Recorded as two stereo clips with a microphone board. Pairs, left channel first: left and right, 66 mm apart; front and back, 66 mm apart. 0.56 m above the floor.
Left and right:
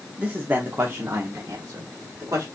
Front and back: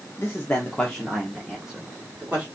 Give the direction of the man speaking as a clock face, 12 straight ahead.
1 o'clock.